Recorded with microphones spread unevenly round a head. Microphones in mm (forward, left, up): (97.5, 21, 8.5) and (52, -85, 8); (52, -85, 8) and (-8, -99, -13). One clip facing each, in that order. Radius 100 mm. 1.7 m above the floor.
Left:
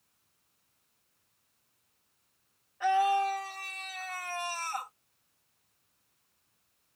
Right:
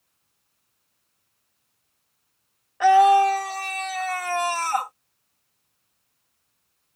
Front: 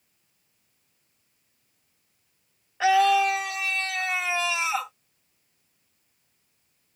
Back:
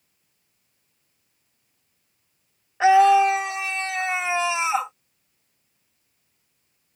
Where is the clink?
No clink in this recording.